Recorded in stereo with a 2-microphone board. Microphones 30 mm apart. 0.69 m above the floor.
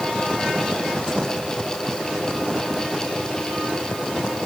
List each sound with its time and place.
Only background noise.